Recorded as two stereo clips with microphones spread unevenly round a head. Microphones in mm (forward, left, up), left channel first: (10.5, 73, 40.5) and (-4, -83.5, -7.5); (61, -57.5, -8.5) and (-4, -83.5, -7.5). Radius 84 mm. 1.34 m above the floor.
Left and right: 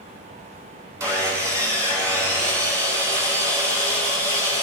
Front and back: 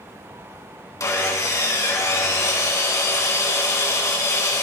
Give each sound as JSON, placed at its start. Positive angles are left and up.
{"t": 1.0, "sound": "sawing", "azimuth_deg": -15, "distance_m": 3.0}